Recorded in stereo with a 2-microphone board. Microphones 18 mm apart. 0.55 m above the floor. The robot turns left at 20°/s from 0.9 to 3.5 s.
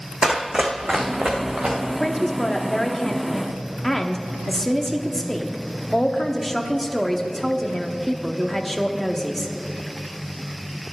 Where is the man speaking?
25° left (ahead or behind), 0.9 m; by 9.5 s 20° left (ahead or behind), 0.9 m.